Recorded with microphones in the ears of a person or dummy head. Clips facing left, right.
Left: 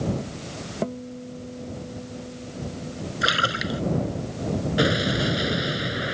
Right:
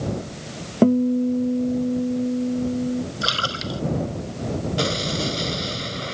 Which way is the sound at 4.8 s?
15° left (ahead or behind).